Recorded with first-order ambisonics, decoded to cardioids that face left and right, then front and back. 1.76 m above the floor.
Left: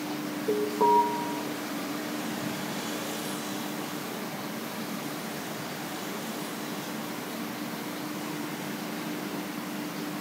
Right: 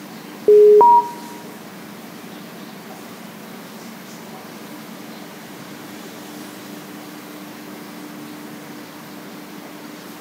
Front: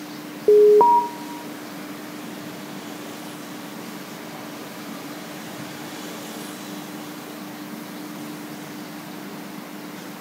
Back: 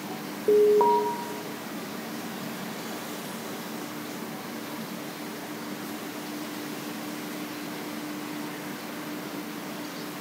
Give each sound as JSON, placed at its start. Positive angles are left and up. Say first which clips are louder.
{"t": 0.5, "sound": "an alarm", "louder": "right 15 dB, front 7 dB", "azimuth_deg": -60, "distance_m": 1.0}